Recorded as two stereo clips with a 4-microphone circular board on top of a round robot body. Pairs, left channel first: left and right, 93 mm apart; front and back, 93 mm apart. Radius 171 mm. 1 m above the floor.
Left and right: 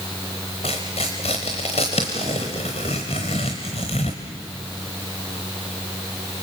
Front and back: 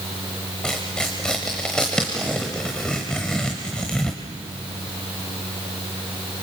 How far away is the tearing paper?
About 0.8 m.